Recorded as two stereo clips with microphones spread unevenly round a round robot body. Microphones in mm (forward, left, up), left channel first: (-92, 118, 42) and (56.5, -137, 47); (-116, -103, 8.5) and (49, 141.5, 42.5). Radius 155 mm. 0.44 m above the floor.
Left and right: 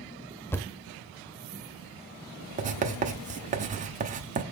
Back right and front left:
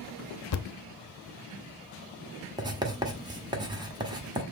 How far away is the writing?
About 1.4 m.